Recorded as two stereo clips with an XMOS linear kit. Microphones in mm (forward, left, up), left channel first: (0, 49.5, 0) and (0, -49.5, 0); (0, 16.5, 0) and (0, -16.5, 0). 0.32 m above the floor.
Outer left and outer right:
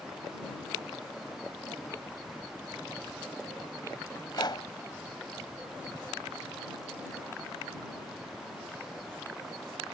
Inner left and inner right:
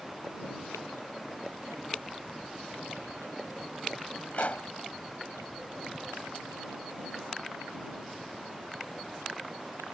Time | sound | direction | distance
4.3 | a pop | 45° left (ahead or behind) | ?